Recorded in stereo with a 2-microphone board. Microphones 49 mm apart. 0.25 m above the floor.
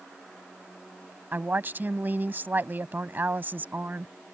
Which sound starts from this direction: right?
A woman speaking, at 1.3 s.